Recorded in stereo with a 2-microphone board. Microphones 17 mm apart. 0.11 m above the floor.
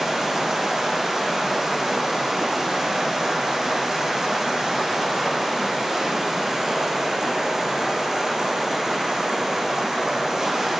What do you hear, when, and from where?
0.0 s running water: 40° right (ahead or behind), 1.2 m